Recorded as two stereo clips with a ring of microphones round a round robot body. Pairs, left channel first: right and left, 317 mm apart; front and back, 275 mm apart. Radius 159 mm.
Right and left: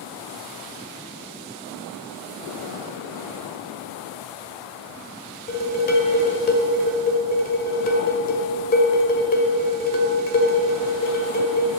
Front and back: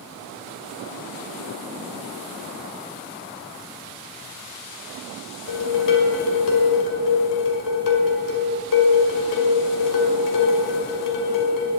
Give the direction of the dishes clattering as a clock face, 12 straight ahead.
1 o'clock.